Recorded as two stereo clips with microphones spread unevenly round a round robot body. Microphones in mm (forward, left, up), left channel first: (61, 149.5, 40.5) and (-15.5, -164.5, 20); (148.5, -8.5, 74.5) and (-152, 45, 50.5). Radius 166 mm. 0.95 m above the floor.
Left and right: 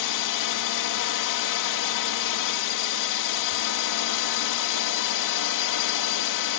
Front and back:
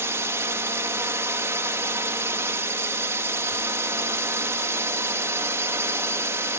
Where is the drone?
90° left.